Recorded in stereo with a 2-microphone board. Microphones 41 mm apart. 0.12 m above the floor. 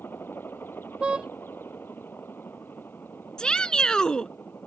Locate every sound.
0.0 s a helicopter: 60° left (ahead or behind); by 4.7 s 55° left (ahead or behind)
1.0 s a car horn: 25° right (ahead or behind)
3.4 s a shout: 20° left (ahead or behind)